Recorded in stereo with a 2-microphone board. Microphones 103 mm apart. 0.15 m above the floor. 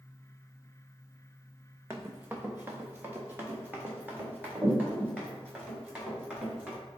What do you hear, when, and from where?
1.9 s running footsteps: 25° right (ahead or behind), 0.7 m; by 6.8 s 15° right (ahead or behind), 3.5 m